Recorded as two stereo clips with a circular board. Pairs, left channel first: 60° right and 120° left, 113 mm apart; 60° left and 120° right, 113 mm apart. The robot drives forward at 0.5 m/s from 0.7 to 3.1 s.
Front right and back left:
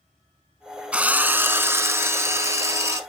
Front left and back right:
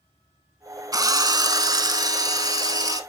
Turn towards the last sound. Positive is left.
turn(degrees=-175)